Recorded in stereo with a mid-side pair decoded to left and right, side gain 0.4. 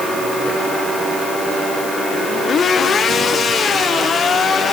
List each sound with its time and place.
Only background noise.